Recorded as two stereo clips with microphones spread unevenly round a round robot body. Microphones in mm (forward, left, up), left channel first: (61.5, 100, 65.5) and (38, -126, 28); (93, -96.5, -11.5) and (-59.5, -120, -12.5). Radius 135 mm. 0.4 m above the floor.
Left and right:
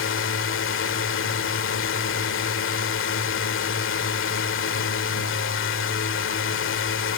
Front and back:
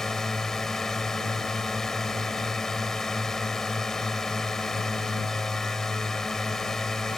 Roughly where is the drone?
Left.